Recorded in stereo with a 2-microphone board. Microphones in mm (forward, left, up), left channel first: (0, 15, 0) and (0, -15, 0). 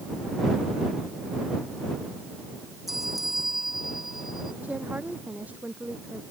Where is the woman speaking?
70° right (ahead or behind).